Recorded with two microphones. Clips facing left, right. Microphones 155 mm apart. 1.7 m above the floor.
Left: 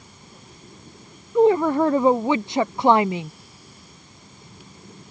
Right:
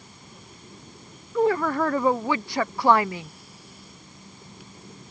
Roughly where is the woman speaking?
Left.